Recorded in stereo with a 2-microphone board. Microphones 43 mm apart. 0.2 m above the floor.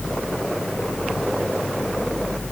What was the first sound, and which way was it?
Only background noise.